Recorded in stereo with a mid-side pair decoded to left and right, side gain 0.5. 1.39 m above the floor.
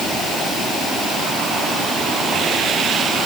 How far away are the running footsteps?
I don't hear running footsteps.